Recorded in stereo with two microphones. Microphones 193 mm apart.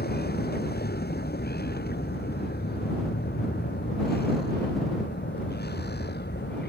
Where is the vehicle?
55° left (ahead or behind).